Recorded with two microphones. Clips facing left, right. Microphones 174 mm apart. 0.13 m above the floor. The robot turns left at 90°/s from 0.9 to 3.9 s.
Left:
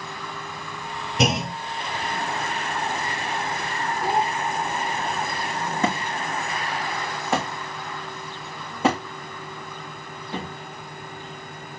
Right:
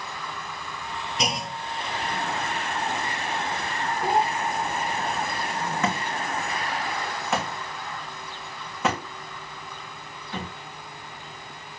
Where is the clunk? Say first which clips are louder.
Left 8 dB; 100° left, 0.6 m; by 1.6 s 65° left, 0.6 m.